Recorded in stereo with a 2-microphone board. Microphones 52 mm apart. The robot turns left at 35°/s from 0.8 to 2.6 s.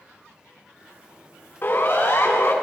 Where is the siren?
125° left, 3 m; by 2.5 s 95° left, 3 m.